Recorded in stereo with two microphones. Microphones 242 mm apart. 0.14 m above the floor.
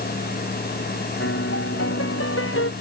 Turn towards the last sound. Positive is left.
turn(degrees=60)  # may be behind; listen again after turning